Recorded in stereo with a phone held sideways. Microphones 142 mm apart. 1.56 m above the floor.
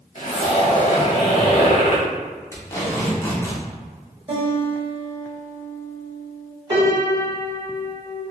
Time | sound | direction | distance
0.1 | a zipper | 60° left (ahead or behind) | 1.0 m
2.5 | tape being pulled | 20° left (ahead or behind) | 0.8 m
4.3 | a guitar | 40° right (ahead or behind) | 1.1 m
6.7 | a piano | 35° right (ahead or behind) | 1.2 m